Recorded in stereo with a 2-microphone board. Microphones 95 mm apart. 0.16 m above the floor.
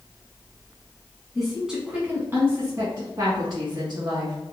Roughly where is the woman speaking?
Centre.